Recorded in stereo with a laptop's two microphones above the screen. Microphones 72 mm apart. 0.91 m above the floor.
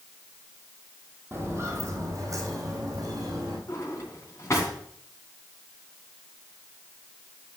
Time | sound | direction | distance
1.3 | footsteps | 30° right (ahead or behind) | 1.6 m
3.7 | a drawer | 40° left (ahead or behind) | 3 m